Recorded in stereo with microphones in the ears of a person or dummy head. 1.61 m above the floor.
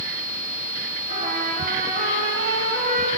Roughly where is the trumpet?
Right.